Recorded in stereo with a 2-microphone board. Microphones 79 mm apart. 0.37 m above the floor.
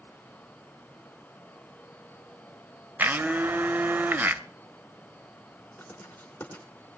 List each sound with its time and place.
3.0 s a blender: 25° right (ahead or behind), 0.5 m
5.8 s writing: 20° left (ahead or behind), 3 m